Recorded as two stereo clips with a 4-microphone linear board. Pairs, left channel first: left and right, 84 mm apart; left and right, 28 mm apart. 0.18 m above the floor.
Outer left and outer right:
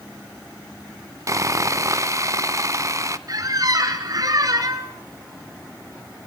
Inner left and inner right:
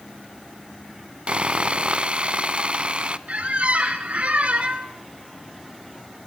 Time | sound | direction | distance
1.3 | sawing | 40° right (ahead or behind) | 0.5 m
3.3 | a squeak | 45° right (ahead or behind) | 1.6 m